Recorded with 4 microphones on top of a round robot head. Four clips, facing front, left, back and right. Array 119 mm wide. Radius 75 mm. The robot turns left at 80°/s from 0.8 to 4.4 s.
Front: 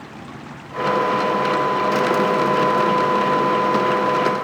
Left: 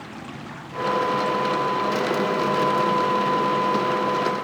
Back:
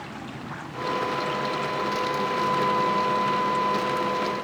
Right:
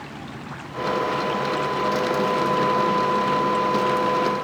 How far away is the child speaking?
I don't hear a child speaking.